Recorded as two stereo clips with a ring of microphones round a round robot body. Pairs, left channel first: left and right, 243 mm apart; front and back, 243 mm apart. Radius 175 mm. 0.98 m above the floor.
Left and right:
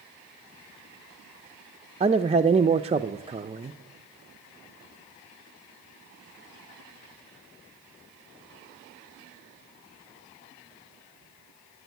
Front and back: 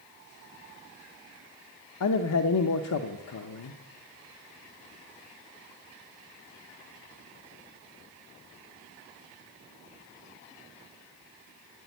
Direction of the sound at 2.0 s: 20° right.